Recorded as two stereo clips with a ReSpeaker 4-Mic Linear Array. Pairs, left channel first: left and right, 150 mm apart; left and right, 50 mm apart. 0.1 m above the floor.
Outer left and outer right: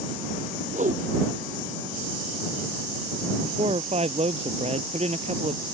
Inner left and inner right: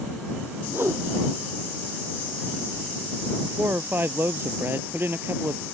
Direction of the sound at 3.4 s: 45° right (ahead or behind).